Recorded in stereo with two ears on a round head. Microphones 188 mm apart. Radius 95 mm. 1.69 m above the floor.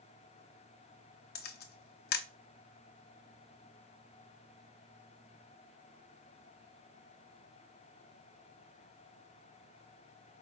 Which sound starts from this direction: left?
A camera shutter, at 1.4 s.